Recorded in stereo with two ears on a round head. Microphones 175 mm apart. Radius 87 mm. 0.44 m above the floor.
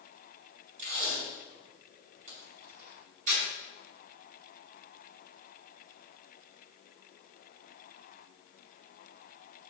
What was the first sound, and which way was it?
Tape being pulled, 40° right (ahead or behind).